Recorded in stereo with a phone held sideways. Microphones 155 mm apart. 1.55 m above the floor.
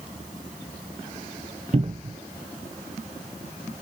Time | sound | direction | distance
1.7 | a cupboard door | 40° right (ahead or behind) | 0.8 m